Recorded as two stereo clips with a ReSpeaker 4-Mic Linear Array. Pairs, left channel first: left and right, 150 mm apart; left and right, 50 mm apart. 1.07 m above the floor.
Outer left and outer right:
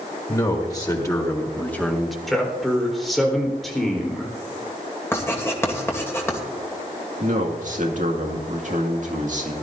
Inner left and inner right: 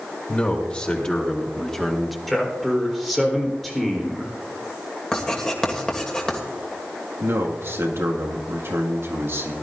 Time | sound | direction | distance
0.3 | a man speaking | 25° left (ahead or behind) | 3 m
2.3 | a man speaking | centre (ahead or behind) | 3.5 m
5.1 | writing | 15° left (ahead or behind) | 2.0 m
7.2 | a man speaking | 55° right (ahead or behind) | 2 m